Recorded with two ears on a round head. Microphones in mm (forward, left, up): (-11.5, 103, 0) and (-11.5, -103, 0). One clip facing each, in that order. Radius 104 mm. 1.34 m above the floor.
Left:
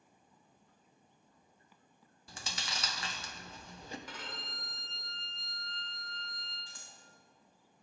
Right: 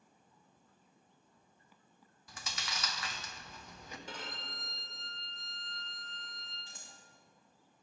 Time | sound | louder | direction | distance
2.3 | chewing | left 1 dB | 25° left (ahead or behind) | 0.6 m
4.1 | a violin | right 1 dB | 25° right (ahead or behind) | 1.3 m
6.7 | scissors | right 1 dB | 20° right (ahead or behind) | 1.1 m